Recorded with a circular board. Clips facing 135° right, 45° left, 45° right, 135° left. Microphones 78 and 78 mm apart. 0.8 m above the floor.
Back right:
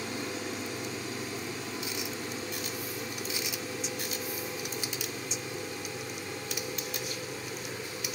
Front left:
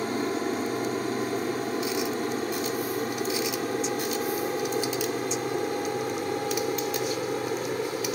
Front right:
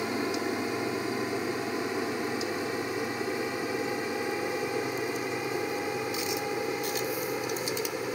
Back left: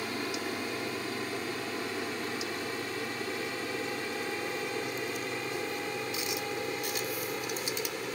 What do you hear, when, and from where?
0.0 s an aircraft: 20° left; by 8.2 s 30° left